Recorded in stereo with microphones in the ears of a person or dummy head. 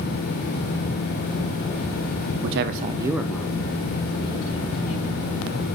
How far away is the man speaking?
About 0.6 m.